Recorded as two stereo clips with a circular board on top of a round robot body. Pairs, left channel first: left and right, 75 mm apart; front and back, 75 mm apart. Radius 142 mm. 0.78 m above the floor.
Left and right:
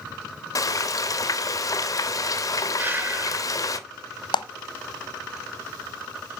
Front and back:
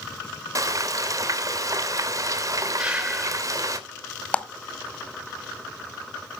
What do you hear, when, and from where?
0.6 s frying: 135° left, 1.5 m
2.8 s breathing: 120° right, 1.0 m
4.3 s a clap: 75° left, 1.1 m